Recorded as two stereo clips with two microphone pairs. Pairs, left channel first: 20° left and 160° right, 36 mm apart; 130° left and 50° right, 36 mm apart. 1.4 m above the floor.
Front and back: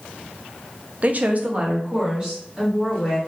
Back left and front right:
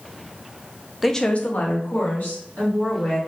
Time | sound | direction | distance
1.0 | a woman speaking | 140° right | 0.5 m